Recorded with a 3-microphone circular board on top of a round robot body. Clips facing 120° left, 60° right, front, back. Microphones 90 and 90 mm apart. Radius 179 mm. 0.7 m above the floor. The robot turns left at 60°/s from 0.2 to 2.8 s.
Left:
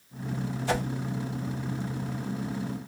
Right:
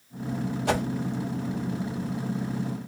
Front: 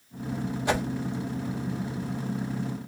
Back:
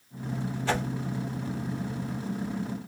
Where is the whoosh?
75° right, 1.5 m; by 0.8 s 85° right, 1.5 m.